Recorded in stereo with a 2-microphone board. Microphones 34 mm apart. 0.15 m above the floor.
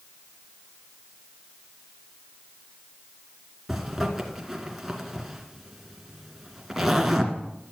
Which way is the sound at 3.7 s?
5° right (ahead or behind).